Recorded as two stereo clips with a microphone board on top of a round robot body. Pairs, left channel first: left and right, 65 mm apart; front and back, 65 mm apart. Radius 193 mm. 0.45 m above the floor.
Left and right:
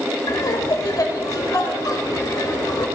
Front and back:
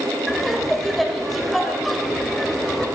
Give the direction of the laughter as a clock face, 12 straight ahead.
9 o'clock.